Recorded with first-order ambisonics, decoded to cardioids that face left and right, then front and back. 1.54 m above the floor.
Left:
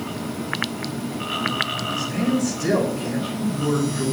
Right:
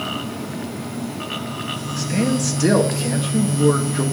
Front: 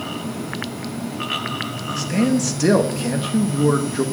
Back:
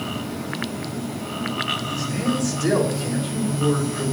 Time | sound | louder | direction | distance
2.0 | a man speaking | right 5 dB, front 4 dB | 35° right | 1.9 m